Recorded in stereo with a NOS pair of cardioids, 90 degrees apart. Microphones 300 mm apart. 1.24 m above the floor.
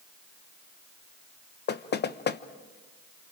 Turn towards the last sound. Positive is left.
turn(degrees=35)